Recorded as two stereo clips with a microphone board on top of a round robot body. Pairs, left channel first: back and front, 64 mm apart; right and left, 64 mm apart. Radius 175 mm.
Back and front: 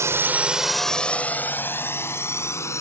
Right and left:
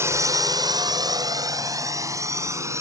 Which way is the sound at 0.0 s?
45° left.